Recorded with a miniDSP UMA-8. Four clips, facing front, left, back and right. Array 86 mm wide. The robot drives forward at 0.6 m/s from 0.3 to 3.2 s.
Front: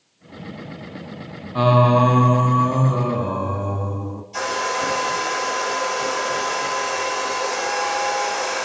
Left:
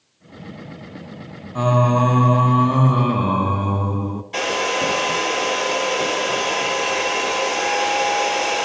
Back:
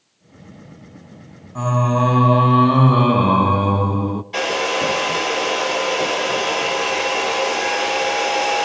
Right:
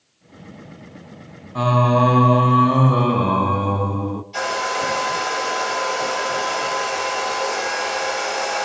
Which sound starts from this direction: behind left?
A hair dryer, at 4.3 s.